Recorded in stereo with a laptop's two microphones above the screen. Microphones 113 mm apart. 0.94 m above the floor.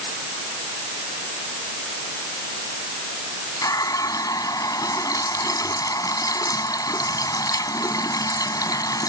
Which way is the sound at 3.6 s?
30° left (ahead or behind).